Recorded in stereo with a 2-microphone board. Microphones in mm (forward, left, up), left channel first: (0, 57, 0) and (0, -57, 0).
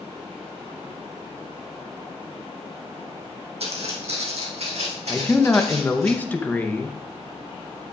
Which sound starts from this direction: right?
Footsteps, at 3.6 s.